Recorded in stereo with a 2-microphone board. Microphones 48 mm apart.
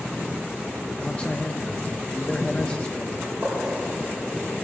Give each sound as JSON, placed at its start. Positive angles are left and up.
{"t": 1.0, "sound": "a man speaking", "side_deg": 25, "distance_m": 0.7}
{"t": 3.2, "sound": "a gunshot", "side_deg": -30, "distance_m": 4.0}